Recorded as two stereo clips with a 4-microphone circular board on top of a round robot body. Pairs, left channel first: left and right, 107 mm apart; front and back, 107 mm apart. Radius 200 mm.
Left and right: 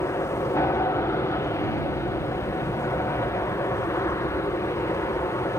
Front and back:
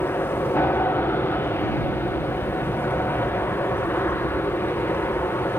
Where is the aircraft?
50° left.